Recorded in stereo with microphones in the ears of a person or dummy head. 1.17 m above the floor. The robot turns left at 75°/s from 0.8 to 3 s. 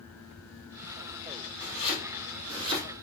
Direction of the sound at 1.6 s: 55° left (ahead or behind).